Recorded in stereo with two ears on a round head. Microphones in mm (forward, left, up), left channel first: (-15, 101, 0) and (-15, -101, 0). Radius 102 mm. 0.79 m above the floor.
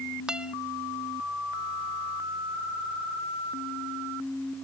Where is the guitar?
5° right (ahead or behind).